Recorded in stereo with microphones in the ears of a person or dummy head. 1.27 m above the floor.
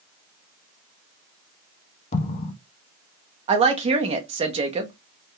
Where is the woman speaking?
35° right (ahead or behind), 0.7 m.